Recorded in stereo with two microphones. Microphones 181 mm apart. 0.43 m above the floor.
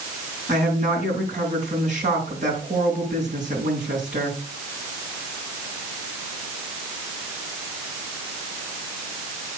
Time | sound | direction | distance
0.5 | a woman speaking | 45° right (ahead or behind) | 5.5 m